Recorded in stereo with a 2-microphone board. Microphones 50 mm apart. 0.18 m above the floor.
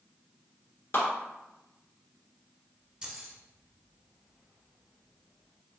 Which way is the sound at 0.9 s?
50° left (ahead or behind).